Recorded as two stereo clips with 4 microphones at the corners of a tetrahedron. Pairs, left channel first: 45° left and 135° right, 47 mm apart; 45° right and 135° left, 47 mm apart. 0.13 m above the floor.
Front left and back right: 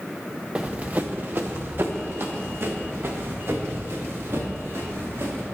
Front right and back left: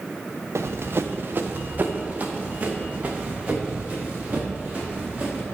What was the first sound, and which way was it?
Running footsteps, 160° left.